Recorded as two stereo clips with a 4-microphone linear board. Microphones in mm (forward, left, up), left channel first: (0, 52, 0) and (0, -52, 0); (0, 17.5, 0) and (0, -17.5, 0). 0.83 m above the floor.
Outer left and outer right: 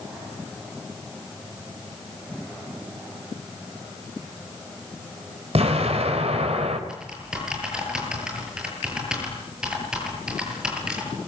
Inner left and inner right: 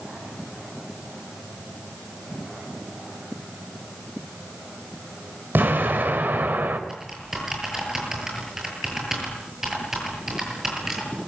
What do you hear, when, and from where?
5.5 s an explosion: 80° right, 4.5 m
6.9 s typing on a keyboard: 10° right (ahead or behind), 9 m